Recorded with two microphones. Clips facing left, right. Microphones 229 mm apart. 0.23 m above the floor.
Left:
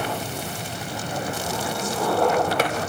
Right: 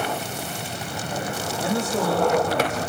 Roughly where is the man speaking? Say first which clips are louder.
Right 5 dB; right.